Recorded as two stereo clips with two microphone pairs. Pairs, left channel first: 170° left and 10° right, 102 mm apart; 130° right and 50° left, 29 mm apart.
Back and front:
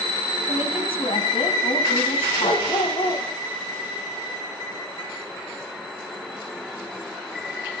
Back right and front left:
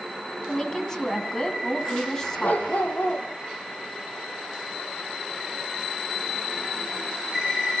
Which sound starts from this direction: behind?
A woman speaking, at 0.5 s.